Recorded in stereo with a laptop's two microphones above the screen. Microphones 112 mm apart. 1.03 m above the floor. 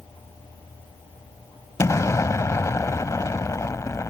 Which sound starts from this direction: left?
An explosion, at 1.8 s.